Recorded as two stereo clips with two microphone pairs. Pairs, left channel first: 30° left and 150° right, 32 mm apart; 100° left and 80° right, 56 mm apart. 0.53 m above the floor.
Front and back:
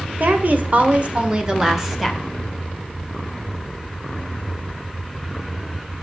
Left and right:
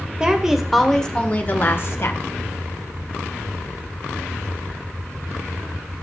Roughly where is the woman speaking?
Behind right.